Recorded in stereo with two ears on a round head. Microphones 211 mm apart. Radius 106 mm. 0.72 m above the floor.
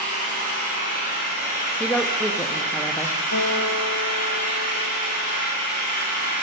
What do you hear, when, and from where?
0.0 s an engine running: 40° left (ahead or behind), 4.5 m
1.8 s a woman speaking: 5° left (ahead or behind), 0.6 m
3.3 s a guitar: 80° left, 3 m